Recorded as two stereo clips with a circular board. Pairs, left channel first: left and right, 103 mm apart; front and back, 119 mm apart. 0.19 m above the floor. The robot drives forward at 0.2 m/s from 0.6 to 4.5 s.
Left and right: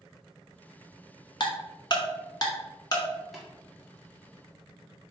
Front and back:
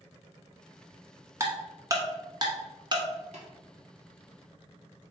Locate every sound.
1.4 s ticking: 120° left, 0.9 m; by 3.0 s 140° left, 1.0 m
3.3 s tapping: straight behind, 1.6 m